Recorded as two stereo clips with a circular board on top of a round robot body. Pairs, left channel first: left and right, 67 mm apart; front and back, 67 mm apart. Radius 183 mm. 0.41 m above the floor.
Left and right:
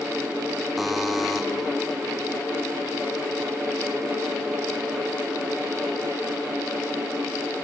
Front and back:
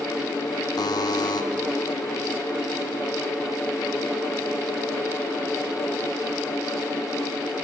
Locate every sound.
0.8 s a buzzer: straight ahead, 0.8 m